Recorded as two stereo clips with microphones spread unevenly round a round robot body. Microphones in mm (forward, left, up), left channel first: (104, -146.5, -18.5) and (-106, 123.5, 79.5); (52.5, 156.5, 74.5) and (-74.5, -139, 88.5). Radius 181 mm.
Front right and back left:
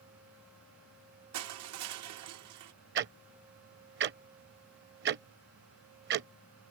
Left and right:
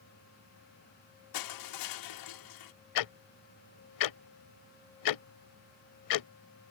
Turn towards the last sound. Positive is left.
turn(degrees=90)